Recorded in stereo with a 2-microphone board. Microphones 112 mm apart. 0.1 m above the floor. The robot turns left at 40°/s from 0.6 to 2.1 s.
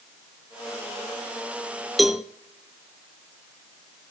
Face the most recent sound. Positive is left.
turn(degrees=-5)  # may be behind; listen again after turning